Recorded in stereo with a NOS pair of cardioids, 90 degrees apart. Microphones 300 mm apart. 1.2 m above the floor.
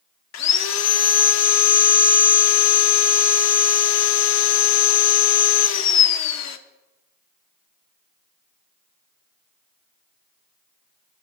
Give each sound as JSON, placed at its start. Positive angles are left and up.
{"t": 0.3, "sound": "sawing", "azimuth_deg": 65, "distance_m": 0.8}